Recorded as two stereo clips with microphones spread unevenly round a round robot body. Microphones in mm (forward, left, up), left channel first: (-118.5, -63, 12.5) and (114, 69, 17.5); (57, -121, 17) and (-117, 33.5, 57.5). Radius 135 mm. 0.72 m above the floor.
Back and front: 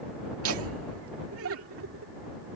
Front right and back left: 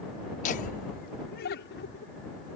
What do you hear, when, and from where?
0.4 s laughter: 5° left; by 2.1 s 5° right